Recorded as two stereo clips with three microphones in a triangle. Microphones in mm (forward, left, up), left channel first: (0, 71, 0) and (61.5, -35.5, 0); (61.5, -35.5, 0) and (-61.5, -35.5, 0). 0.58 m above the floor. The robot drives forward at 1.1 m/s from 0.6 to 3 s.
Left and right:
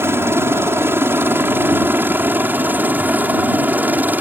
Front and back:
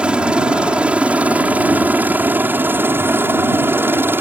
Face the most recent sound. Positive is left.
turn(degrees=-125)